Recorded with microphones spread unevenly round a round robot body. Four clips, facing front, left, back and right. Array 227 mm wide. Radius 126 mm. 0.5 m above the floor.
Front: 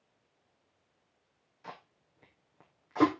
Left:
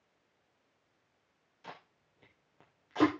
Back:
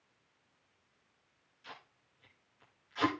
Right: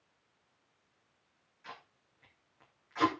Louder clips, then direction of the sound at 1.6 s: Left 1 dB, front 5 dB; 35° left.